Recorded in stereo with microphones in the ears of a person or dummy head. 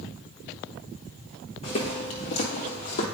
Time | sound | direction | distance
1.6 | footsteps | 25° left (ahead or behind) | 1.4 m